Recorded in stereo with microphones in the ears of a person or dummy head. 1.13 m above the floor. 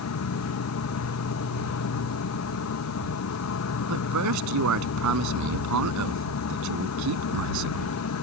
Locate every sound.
0.0 s an insect: 70° left (ahead or behind)
3.9 s a man speaking: 70° right (ahead or behind)